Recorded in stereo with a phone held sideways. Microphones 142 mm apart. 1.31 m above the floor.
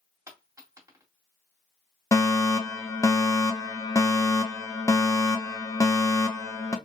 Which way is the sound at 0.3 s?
20° right (ahead or behind).